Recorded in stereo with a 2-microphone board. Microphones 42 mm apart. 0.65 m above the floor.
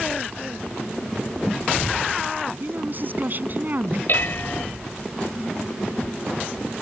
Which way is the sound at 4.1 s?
55° left (ahead or behind).